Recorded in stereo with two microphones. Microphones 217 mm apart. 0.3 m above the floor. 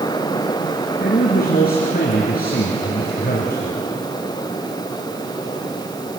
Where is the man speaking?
50° left (ahead or behind), 4 m.